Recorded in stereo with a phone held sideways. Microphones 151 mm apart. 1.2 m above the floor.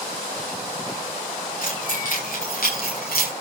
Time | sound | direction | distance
1.6 | keys jangling | 65° left (ahead or behind) | 7.5 m